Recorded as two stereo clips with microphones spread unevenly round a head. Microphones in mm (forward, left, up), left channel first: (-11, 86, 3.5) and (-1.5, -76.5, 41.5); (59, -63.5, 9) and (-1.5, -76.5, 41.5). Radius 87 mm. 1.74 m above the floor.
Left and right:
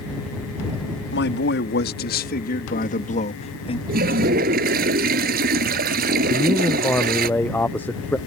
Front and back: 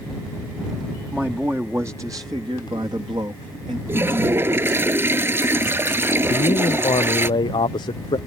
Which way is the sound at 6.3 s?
5° left.